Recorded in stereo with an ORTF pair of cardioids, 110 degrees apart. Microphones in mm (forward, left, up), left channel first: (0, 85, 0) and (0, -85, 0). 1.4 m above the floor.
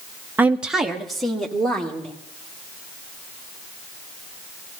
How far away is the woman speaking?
About 0.9 m.